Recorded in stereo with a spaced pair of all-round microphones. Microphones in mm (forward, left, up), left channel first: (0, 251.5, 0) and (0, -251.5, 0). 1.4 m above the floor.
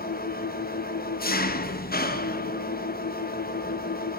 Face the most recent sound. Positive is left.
turn(degrees=20)  # may be behind; listen again after turning